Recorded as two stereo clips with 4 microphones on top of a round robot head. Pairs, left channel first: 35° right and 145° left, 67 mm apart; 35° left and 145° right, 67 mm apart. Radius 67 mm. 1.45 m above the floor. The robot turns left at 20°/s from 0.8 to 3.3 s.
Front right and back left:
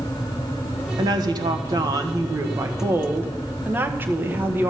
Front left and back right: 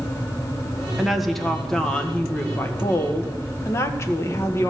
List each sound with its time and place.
1.0 s a woman speaking: 130° left, 1.4 m; by 4.7 s 85° left, 1.4 m